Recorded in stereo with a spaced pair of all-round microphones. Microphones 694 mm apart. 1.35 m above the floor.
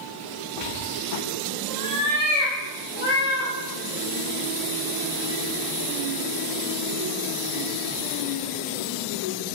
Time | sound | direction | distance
0.6 | a cat meowing | 65° right (ahead or behind) | 3 m